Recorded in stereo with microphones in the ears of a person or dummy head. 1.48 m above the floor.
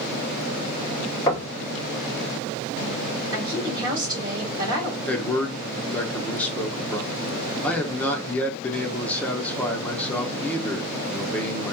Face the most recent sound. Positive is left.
turn(degrees=5)  # may be behind; listen again after turning